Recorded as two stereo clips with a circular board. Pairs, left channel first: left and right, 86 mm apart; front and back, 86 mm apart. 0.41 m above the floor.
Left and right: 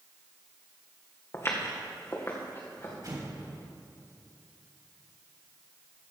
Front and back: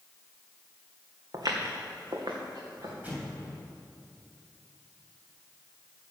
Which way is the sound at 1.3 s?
140° left.